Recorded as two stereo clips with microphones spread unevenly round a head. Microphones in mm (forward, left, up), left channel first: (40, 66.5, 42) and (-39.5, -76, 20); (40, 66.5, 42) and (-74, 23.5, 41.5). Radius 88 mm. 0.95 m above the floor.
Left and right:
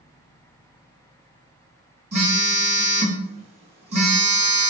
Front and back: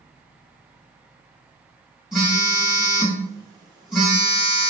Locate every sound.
2.1 s a phone buzzing: 75° right, 1.6 m